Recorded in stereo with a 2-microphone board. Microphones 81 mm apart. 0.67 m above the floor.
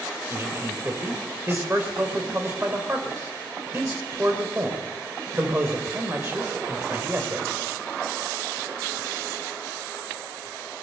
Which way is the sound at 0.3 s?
25° right (ahead or behind).